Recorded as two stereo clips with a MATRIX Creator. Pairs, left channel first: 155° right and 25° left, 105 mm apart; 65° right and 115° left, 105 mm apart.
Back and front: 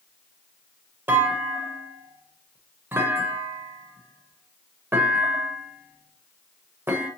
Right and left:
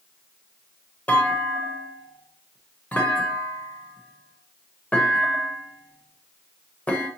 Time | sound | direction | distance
1.1 | a clunk | 15° right | 1.0 m